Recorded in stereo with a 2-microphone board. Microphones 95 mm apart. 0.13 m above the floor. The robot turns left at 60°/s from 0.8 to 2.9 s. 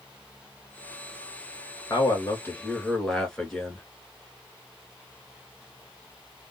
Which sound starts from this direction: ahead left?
A man speaking, at 1.9 s.